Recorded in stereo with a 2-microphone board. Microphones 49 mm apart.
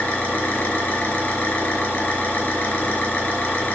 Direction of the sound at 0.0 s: 30° left (ahead or behind).